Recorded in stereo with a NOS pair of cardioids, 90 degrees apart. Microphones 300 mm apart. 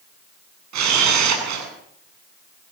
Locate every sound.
0.7 s a camera shutter: 65° right, 9 m